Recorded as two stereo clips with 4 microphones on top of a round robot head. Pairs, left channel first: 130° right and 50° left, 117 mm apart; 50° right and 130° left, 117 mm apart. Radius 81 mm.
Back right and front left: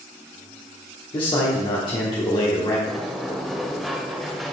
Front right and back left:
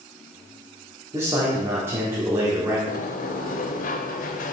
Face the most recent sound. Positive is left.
turn(degrees=-40)